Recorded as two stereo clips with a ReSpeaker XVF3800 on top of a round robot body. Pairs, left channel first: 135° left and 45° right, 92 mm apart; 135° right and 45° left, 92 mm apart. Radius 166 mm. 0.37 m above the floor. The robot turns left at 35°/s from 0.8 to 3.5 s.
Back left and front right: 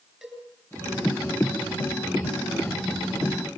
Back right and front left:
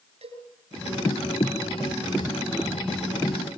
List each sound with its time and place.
0.2 s a cowbell: 40° left, 5 m